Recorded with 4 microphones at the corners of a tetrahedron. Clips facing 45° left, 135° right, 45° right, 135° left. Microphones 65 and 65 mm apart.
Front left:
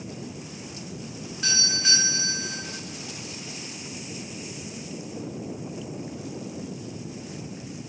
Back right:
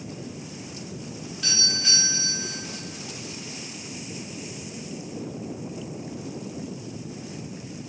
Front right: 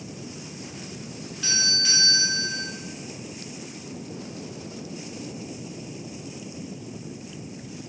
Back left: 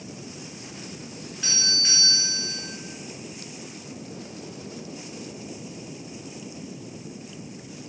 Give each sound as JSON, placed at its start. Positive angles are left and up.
{"t": 1.4, "sound": "a doorbell", "azimuth_deg": 70, "distance_m": 1.5}